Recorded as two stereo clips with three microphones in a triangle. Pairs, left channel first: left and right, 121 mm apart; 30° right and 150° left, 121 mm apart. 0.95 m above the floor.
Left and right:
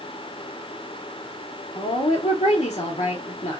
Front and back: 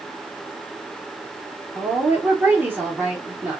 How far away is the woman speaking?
About 0.8 m.